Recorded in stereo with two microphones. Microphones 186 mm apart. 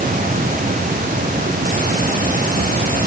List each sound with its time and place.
Only background noise.